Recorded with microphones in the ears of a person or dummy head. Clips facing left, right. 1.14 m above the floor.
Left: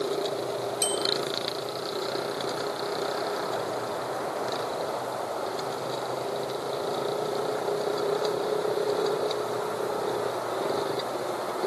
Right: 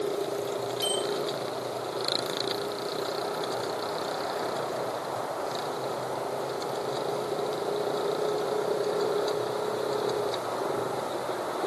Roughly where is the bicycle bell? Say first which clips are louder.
Even; left.